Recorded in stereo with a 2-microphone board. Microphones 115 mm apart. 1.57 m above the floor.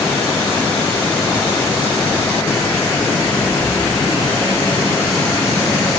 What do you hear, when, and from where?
Only background noise.